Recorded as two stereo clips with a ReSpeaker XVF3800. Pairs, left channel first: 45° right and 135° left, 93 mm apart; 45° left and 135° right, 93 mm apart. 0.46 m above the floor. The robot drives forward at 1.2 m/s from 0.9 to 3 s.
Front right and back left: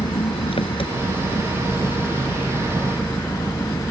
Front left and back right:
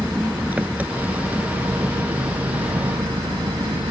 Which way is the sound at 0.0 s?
60° right.